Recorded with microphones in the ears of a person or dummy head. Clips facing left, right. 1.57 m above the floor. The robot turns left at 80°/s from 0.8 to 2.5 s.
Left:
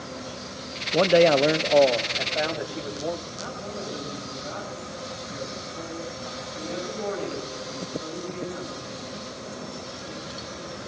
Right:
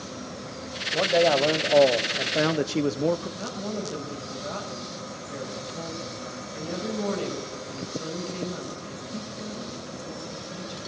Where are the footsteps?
No footsteps in this recording.